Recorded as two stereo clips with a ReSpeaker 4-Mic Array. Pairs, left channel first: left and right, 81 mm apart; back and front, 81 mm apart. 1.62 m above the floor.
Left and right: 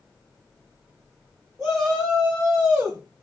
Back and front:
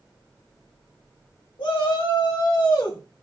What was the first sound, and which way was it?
A shout, 170° right.